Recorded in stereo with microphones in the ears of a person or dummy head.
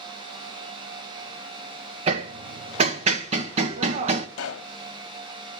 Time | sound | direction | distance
2.1 | hammering | 40° right (ahead or behind) | 0.9 m
4.4 | a pop | 80° left | 1.0 m